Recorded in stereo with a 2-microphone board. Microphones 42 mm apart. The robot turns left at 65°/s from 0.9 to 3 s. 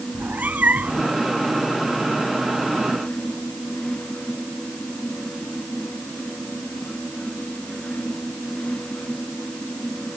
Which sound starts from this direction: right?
A cat meowing, at 0.1 s.